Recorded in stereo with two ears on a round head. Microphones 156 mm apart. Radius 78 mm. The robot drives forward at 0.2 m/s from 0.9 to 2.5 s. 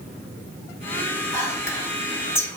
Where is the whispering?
15° left (ahead or behind), 2.5 m.